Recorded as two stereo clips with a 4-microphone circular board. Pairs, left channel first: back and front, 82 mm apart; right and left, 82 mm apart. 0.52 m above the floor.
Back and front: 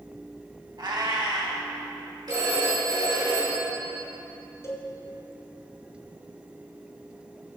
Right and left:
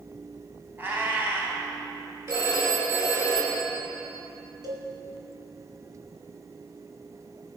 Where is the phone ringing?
35° left, 4.5 m.